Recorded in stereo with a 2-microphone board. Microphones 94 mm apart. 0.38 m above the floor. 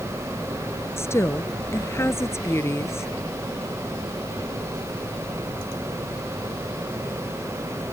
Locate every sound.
1.0 s a woman speaking: 25° left (ahead or behind)